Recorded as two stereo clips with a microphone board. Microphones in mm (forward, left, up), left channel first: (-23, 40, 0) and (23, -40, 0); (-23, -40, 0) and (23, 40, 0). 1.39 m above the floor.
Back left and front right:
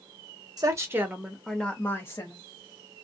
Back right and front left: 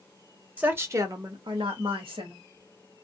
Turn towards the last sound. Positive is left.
turn(degrees=70)